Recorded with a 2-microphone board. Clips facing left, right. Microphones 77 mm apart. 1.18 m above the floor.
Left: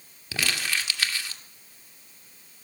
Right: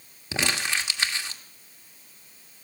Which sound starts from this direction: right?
Crumpling, at 0.3 s.